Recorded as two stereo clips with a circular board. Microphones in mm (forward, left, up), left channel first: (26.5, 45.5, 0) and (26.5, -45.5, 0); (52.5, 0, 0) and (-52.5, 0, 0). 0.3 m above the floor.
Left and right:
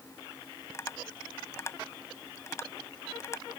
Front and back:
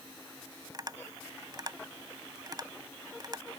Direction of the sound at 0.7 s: 140° left.